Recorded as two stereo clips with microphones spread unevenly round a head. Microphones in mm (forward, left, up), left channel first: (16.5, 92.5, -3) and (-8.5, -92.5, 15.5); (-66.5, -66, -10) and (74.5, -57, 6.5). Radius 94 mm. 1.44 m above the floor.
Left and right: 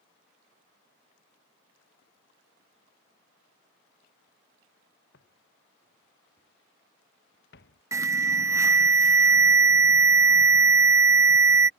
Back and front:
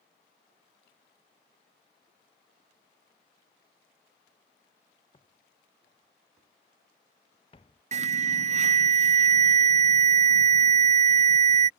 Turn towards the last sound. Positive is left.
turn(degrees=-20)